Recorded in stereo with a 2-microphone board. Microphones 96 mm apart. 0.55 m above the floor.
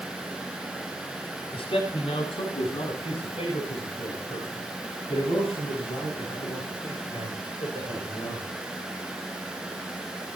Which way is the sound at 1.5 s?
70° left (ahead or behind).